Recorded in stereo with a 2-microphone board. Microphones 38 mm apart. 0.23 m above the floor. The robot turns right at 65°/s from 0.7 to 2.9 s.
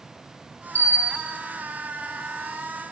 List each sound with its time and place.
0.8 s a bell: 130° left, 1.4 m; by 1.2 s 160° left, 1.4 m